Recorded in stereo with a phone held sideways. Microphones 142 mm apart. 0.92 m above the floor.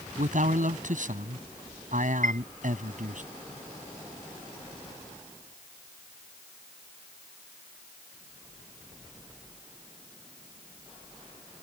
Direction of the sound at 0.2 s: 65° right (ahead or behind).